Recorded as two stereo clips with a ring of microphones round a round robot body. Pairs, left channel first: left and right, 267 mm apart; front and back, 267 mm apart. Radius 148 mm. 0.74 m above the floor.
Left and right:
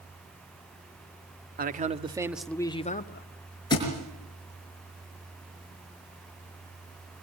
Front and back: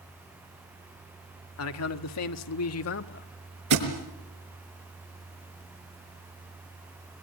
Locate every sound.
1.6 s a man speaking: 35° right, 1.6 m; by 3.3 s 45° left, 1.4 m
3.7 s a thud: 165° left, 5 m